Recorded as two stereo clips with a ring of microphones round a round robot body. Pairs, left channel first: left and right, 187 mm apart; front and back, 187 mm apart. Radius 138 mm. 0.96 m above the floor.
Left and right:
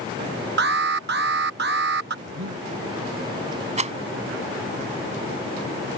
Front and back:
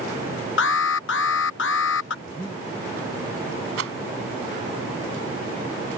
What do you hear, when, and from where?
0.6 s an alarm: 40° right
2.2 s breathing: 80° right
3.8 s a rattle: 140° right